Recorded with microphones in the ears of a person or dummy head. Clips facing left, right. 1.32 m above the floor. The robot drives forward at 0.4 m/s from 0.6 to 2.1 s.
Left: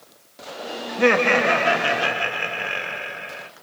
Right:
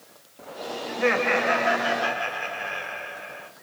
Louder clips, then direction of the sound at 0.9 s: Left 5 dB; 65° left (ahead or behind).